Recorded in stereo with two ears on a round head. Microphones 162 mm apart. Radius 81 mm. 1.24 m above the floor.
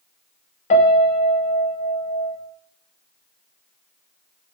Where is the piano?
40° left (ahead or behind), 0.5 m.